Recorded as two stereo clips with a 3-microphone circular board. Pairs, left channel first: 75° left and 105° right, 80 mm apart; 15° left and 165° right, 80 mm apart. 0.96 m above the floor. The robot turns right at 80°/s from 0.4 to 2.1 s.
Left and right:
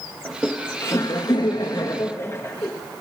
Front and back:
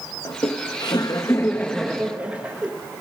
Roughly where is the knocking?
I don't hear knocking.